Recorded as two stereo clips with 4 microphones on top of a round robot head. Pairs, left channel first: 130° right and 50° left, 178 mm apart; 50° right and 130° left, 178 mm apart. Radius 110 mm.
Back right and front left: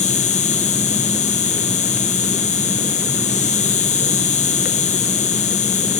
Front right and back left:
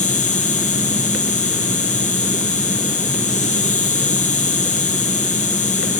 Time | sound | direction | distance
0.0 | an insect | 90° right | 1.1 m